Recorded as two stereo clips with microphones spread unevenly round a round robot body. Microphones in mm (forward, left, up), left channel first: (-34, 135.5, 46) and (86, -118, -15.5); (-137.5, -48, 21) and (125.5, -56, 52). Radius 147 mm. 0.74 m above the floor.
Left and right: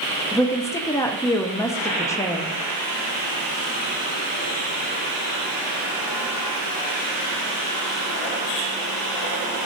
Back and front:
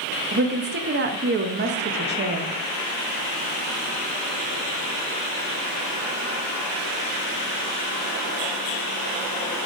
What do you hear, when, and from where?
0.3 s a woman speaking: 25° left, 0.7 m